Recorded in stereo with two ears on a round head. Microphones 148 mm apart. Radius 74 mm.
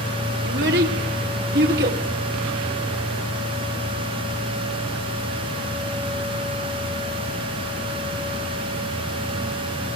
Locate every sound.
0.4 s a child speaking: 65° right (ahead or behind), 3 m